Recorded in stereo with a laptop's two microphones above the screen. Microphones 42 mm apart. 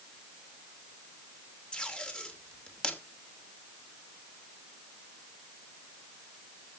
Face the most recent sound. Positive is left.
turn(degrees=20)  # may be behind; listen again after turning